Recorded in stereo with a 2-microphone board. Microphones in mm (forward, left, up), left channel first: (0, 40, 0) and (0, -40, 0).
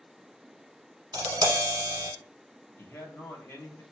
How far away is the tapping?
About 1.0 m.